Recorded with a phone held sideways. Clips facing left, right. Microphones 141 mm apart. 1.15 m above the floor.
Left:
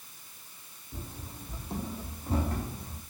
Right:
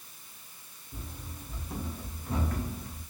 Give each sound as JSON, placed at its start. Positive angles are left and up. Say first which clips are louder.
{"t": 0.9, "sound": "running footsteps", "louder": "left 1 dB", "side_deg": 25, "distance_m": 2.0}